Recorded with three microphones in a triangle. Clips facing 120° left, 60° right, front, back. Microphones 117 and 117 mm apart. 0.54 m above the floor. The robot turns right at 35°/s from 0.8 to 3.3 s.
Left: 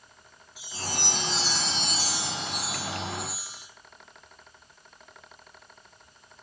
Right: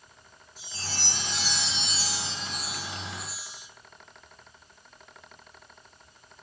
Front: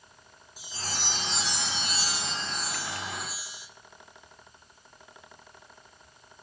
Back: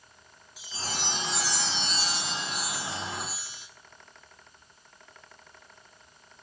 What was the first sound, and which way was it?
A chime, 40° left.